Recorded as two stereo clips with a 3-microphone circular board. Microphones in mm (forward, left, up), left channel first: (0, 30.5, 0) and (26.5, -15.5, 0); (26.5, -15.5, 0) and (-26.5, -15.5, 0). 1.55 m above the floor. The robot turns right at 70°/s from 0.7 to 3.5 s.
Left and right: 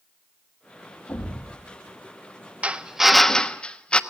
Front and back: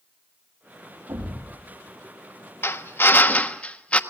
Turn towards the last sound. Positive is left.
turn(degrees=55)